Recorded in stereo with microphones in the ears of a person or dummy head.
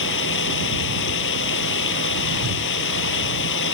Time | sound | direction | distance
0.0 | running water | 65° left (ahead or behind) | ?